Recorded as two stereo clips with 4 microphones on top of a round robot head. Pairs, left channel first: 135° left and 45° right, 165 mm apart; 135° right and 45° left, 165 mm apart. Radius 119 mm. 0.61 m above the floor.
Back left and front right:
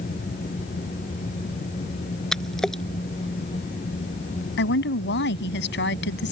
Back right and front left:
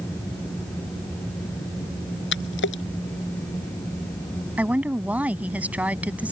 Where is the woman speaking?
130° left.